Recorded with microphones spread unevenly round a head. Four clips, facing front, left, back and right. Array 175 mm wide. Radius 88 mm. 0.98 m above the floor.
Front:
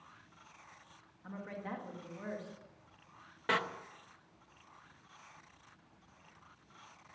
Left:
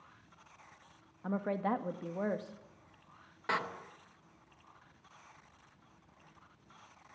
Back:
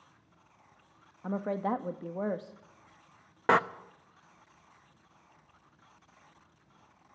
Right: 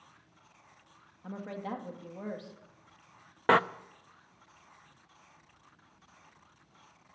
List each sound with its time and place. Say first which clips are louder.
1.2 s a woman speaking: left 5 dB, back 12 dB; 160° left, 1.8 m
3.5 s a door slam: right 11 dB, back 9 dB; 125° right, 0.8 m